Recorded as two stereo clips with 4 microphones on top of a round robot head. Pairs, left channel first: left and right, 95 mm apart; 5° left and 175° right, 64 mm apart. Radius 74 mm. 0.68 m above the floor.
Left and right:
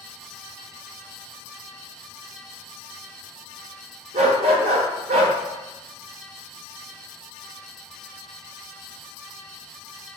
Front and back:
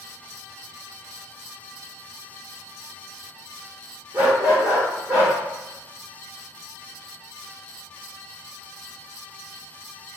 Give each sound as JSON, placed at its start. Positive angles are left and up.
{"t": 4.1, "sound": "a dog barking", "azimuth_deg": -100, "distance_m": 1.0}